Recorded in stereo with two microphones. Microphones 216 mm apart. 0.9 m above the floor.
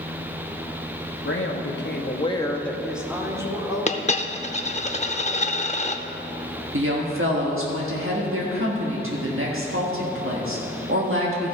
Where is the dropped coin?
30° left (ahead or behind), 0.6 m.